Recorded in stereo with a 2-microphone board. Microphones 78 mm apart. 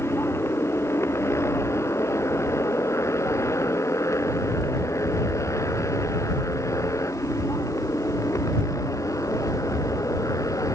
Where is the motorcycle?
35° left (ahead or behind); by 10.8 s 45° left (ahead or behind).